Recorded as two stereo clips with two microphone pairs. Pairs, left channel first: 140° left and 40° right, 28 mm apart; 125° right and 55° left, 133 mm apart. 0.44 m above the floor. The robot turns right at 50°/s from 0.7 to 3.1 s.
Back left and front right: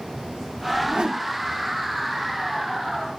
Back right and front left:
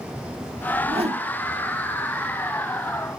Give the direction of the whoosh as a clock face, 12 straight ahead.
12 o'clock.